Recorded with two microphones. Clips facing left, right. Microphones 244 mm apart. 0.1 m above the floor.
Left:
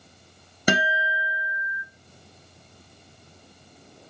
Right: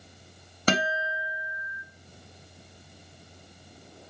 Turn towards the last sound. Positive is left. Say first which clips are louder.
# left 2 dB
turn(degrees=15)  # may be behind; listen again after turning